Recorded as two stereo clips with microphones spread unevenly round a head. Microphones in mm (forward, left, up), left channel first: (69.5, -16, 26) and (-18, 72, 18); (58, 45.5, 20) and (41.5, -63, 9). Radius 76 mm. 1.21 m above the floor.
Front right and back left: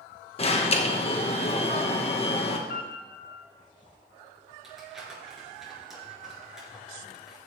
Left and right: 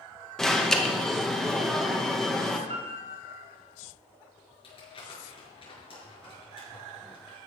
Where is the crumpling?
45° left, 6 m.